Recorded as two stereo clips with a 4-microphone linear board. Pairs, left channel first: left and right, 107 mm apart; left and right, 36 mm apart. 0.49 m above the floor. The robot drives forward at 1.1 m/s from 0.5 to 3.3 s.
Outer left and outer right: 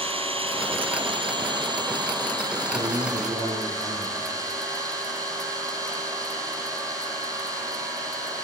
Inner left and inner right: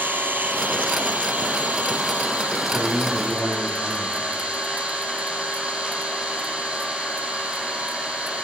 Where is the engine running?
55° right (ahead or behind), 4 m; by 8.4 s 30° right (ahead or behind), 6 m.